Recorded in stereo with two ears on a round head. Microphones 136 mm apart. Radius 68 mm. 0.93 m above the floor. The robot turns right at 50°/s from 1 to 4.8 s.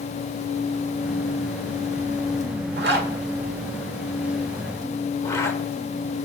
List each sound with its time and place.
2.8 s a zipper: 75° right (ahead or behind), 1.4 m; by 5.6 s 20° left (ahead or behind), 1.4 m